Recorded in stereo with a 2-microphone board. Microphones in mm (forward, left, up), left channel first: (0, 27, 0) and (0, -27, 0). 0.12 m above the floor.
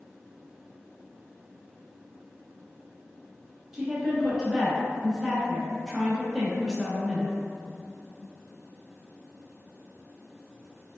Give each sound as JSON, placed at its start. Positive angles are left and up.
{"t": 3.7, "sound": "a woman speaking", "side_deg": -10, "distance_m": 1.2}